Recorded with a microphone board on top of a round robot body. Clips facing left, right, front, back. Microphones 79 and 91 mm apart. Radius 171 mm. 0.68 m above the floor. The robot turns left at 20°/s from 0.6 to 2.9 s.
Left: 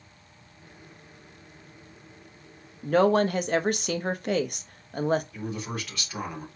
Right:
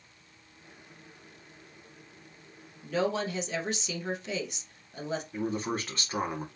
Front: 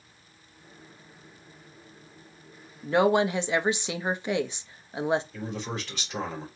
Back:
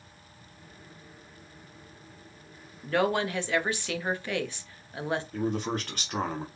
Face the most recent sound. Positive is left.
turn(degrees=-145)